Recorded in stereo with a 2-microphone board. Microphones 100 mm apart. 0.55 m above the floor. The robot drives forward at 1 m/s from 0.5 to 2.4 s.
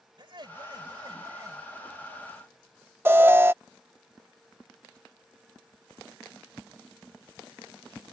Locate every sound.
0.2 s laughter: 50° right (ahead or behind); by 2.1 s 30° right (ahead or behind)
3.0 s an alarm: 20° right (ahead or behind)